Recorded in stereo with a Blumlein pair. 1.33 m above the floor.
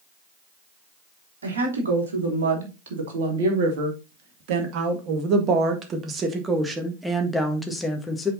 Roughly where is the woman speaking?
Right.